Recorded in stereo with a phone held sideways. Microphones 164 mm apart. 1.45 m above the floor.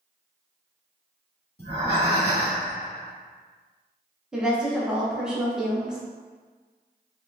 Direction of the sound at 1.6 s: 70° left (ahead or behind).